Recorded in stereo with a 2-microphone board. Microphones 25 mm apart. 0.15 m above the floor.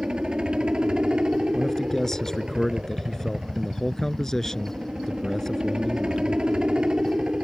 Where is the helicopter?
35° right (ahead or behind).